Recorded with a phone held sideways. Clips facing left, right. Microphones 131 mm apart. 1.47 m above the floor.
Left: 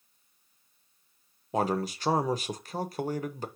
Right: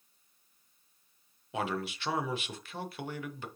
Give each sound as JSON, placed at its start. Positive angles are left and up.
{"t": 1.5, "sound": "a man speaking", "side_deg": 40, "distance_m": 0.6}